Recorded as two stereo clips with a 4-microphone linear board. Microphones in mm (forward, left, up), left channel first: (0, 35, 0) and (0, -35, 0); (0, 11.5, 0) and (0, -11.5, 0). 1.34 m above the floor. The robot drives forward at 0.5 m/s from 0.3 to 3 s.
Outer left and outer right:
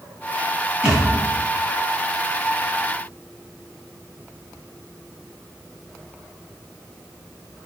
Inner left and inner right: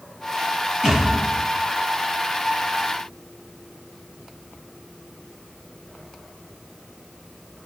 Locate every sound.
0.8 s a thud: 20° right (ahead or behind), 3 m